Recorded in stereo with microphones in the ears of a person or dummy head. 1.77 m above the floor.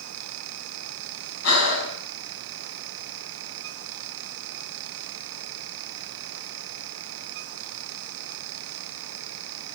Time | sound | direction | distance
1.4 | breathing | 75° left (ahead or behind) | 5.5 m